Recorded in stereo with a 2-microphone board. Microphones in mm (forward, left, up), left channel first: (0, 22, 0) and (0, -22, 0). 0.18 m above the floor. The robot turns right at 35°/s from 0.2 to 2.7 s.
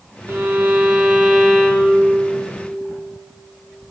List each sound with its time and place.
0.3 s a violin: 60° right, 2.5 m; by 2.2 s 10° left, 2.5 m